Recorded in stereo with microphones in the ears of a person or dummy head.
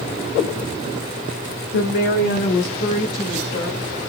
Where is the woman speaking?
55° left (ahead or behind), 0.6 m; by 3.8 s 45° left (ahead or behind), 2.5 m.